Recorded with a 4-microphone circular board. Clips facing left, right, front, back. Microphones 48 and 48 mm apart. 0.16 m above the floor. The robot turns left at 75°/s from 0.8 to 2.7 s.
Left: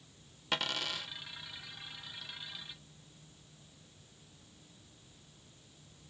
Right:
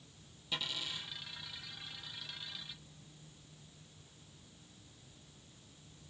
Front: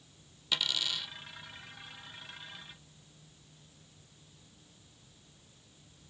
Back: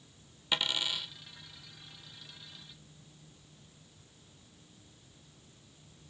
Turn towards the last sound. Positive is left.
turn(degrees=-30)